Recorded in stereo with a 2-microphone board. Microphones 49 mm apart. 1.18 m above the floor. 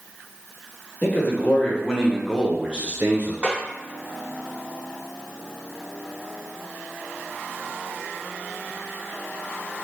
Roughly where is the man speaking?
Left.